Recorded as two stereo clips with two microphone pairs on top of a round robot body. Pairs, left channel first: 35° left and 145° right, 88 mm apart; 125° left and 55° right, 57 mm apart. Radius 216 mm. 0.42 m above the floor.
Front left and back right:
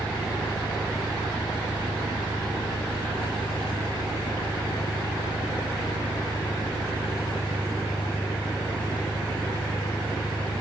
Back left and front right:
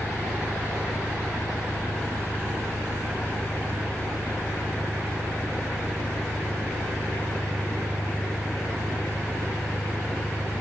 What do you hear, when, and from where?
0.0 s an engine running: 65° left, 3 m